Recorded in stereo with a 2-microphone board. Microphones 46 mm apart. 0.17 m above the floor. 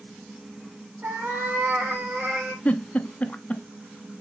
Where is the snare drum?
I don't hear a snare drum.